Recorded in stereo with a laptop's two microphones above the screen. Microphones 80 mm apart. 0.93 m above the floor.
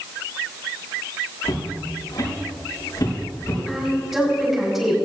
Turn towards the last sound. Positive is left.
turn(degrees=0)  # may be behind; listen again after turning